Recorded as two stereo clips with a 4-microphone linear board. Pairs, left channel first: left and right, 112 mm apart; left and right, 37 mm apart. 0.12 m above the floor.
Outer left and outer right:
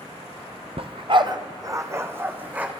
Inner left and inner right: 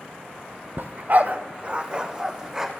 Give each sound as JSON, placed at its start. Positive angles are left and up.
{"t": 0.8, "sound": "a dog barking", "side_deg": -60, "distance_m": 1.0}